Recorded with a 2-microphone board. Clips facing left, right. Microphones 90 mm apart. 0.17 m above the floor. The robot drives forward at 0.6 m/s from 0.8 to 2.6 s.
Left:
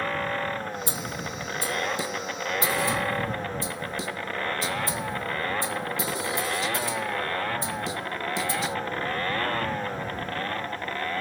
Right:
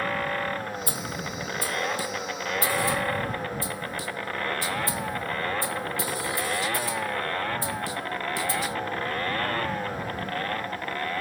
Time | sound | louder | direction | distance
0.9 | a snare drum | even | 25° left (ahead or behind) | ?